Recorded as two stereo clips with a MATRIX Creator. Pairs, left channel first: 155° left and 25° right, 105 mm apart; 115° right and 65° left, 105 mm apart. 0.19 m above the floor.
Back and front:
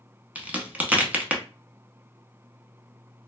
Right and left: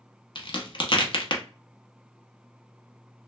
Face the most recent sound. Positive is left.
turn(degrees=-95)